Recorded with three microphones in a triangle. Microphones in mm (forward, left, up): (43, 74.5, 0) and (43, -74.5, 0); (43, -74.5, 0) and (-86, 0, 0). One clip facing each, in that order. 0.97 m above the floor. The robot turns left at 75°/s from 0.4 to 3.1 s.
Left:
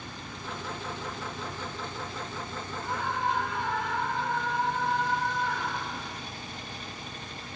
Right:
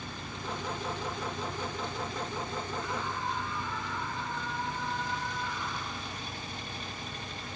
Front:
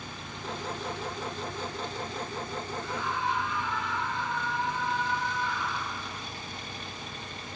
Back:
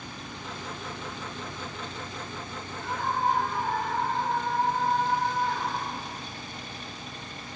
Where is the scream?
130° left; by 6.3 s 105° left.